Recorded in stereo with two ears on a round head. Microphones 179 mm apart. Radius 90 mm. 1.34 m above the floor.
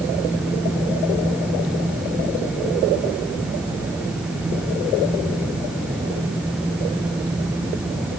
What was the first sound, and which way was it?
Only background noise.